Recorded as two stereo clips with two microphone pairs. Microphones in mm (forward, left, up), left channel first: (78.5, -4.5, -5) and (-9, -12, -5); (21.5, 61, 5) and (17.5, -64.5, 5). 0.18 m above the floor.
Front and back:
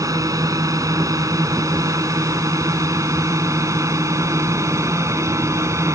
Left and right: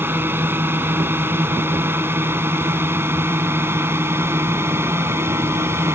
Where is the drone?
160° right; by 6.0 s 150° right.